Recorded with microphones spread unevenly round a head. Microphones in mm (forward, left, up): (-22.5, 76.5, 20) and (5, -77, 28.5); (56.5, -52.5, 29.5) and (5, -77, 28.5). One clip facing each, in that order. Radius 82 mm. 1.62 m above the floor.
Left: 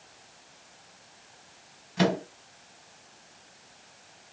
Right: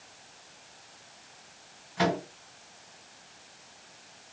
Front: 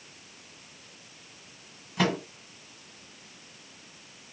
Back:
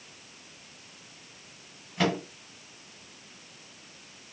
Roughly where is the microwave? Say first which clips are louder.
Left 2 dB, even; ahead left.